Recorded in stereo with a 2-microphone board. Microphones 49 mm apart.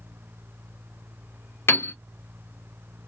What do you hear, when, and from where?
1.7 s a piano: 55° left (ahead or behind), 0.7 m